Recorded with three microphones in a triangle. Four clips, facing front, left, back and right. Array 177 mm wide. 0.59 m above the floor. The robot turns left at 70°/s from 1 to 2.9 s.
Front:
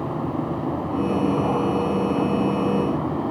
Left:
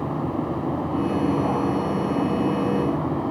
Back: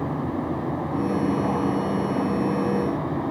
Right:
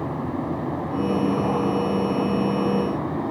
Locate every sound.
Only background noise.